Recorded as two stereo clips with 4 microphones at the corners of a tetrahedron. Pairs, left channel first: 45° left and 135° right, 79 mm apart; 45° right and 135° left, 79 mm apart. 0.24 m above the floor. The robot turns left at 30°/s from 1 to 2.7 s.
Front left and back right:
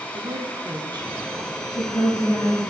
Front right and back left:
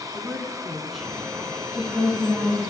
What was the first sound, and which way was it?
A woman speaking, 140° right.